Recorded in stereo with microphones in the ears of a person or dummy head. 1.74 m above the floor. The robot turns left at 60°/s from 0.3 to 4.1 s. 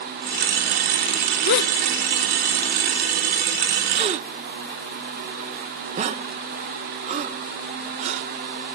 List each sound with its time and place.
1.4 s a gasp: 55° left (ahead or behind); by 8.3 s 40° right (ahead or behind)